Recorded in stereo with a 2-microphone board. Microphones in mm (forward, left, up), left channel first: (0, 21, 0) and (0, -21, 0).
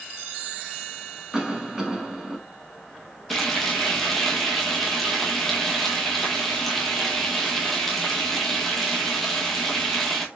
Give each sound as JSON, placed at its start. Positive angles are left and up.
{"t": 1.3, "sound": "a cough", "side_deg": -15, "distance_m": 1.1}
{"t": 3.3, "sound": "frying", "side_deg": 5, "distance_m": 1.0}